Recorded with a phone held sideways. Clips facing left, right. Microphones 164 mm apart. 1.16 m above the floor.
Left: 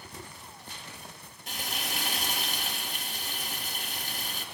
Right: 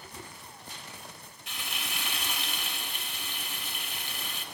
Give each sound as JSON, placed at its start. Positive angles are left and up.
{"t": 1.5, "sound": "frying", "side_deg": 45, "distance_m": 3.0}